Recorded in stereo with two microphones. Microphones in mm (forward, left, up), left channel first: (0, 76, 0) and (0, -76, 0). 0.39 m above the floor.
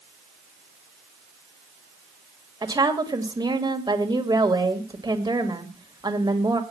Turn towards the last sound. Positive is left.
turn(degrees=-30)  # may be behind; listen again after turning